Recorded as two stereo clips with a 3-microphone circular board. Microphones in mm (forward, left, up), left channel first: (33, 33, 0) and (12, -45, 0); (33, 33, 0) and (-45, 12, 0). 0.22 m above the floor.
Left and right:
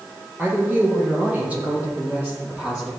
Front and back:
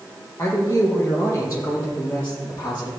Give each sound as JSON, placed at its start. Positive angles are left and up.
{"t": 0.4, "sound": "a man speaking", "azimuth_deg": -40, "distance_m": 4.5}